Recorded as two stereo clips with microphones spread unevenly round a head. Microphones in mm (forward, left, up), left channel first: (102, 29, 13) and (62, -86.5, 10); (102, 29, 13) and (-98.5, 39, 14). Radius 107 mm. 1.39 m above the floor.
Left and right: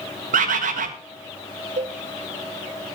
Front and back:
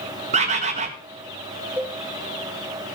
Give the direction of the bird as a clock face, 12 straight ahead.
4 o'clock.